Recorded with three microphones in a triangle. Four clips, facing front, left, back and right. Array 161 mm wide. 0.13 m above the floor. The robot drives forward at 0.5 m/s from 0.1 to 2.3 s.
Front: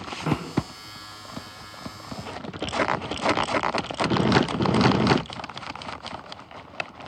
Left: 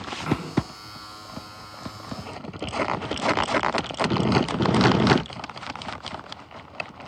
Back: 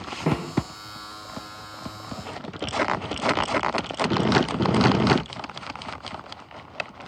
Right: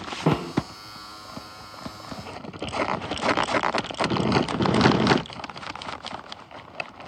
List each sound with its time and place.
0.3 s a snare drum: 110° right, 2 m; by 0.5 s 115° right, 2.5 m